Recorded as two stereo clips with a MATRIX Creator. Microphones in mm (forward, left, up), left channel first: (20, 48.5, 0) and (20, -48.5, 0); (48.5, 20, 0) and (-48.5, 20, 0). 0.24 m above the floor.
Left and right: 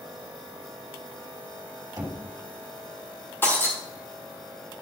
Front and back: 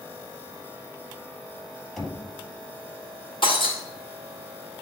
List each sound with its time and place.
2.0 s knocking: 80° right, 1.6 m
3.4 s breaking glass: 25° left, 2.5 m